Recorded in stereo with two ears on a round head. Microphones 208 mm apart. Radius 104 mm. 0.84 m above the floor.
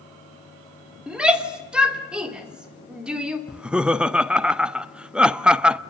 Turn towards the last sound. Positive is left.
turn(degrees=-5)  # may be behind; listen again after turning